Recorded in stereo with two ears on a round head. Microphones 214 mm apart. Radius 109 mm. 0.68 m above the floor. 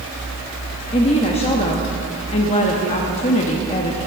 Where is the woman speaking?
25° left (ahead or behind), 0.8 m.